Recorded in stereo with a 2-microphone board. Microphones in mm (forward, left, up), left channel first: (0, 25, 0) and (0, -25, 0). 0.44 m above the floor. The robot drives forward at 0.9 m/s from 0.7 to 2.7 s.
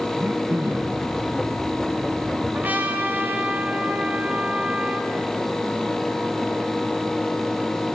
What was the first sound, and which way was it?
Throat clearing, 65° right (ahead or behind).